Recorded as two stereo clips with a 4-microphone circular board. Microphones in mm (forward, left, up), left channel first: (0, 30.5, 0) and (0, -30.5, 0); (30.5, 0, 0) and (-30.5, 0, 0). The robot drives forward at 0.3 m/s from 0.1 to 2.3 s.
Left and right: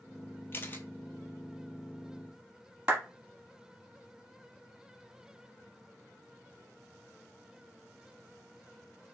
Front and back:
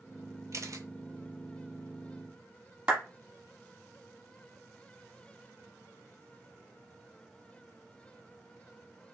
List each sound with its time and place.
0.5 s a camera shutter: 140° left, 0.6 m; by 0.8 s 150° left, 0.6 m
2.9 s a clap: 145° right, 1.2 m